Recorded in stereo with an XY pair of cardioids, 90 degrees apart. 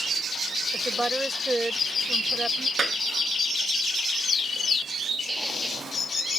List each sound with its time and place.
0.7 s a woman speaking: 15° right
2.8 s a clap: 45° right
5.3 s a squeak: 15° right